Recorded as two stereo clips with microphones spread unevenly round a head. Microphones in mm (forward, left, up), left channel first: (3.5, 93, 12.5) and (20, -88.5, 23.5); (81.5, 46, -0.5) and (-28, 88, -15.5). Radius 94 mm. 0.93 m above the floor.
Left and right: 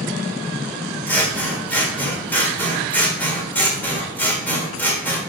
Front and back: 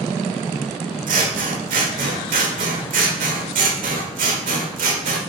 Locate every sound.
1.1 s scissors: 175° left, 1.3 m